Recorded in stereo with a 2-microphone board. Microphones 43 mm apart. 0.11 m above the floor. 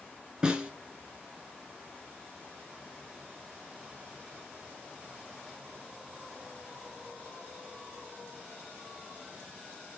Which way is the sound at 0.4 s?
20° right (ahead or behind).